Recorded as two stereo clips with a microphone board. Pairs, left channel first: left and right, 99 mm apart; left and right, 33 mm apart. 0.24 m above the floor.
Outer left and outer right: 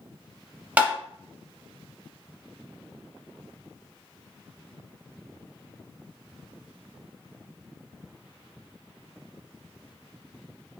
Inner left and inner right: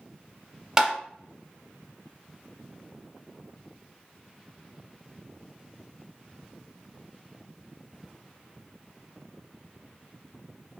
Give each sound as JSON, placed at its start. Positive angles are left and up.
{"t": 0.8, "sound": "tapping", "side_deg": -15, "distance_m": 0.6}